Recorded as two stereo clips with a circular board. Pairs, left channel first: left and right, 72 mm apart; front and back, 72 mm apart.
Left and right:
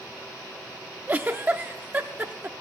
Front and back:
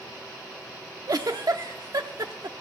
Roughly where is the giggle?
Behind right.